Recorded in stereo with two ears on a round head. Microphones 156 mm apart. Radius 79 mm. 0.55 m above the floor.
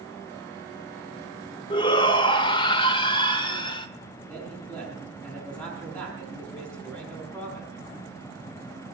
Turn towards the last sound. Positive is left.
turn(degrees=5)  # may be behind; listen again after turning